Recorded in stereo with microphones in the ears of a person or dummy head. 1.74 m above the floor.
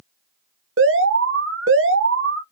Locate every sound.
0.8 s an alarm: 65° right (ahead or behind), 0.8 m